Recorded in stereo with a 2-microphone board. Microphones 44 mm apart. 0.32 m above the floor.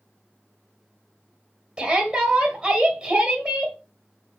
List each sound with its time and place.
1.8 s a shout: 20° right (ahead or behind), 1.6 m